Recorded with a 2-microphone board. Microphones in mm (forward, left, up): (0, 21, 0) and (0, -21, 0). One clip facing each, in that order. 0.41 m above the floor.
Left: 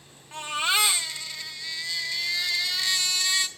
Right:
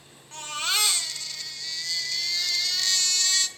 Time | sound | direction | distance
0.3 | a baby crying | 15° left (ahead or behind) | 0.9 m